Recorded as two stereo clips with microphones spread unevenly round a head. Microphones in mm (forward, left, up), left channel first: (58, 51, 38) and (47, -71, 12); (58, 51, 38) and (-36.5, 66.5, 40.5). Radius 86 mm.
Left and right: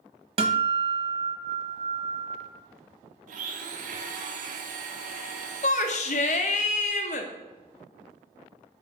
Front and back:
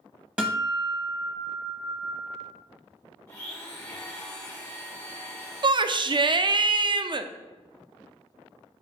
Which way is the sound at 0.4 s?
120° right.